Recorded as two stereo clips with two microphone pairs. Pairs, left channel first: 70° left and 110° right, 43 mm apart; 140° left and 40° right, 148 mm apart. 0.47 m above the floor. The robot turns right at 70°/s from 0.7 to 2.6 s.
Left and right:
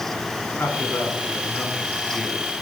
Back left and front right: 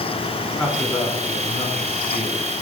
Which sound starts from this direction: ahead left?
A man speaking, at 0.6 s.